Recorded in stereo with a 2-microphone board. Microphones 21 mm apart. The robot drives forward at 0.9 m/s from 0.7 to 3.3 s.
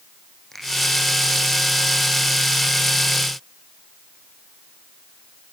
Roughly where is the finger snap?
Centre.